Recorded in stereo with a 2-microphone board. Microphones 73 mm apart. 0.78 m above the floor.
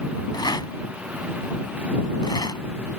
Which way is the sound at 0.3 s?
80° left.